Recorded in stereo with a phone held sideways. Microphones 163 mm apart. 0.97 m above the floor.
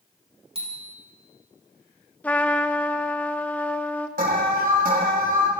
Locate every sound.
0.6 s a bicycle bell: 35° right (ahead or behind), 4 m
2.2 s a trumpet: 10° left (ahead or behind), 0.7 m
4.2 s an alarm: 65° right (ahead or behind), 2.5 m